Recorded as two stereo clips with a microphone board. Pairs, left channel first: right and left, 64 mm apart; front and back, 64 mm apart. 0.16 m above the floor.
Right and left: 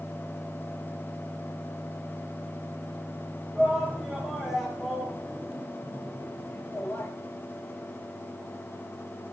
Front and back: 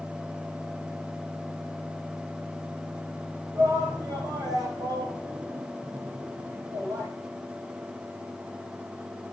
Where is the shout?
175° left, 6 m; by 7.1 s 150° right, 4 m.